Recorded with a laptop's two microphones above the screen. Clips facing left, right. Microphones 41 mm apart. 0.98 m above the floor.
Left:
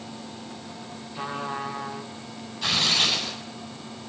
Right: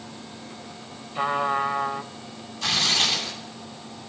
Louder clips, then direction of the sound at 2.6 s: Even; 10° left (ahead or behind).